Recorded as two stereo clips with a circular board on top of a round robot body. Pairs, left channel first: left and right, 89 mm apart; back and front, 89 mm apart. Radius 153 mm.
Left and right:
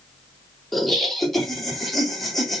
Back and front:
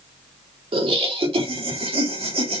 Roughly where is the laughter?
Ahead.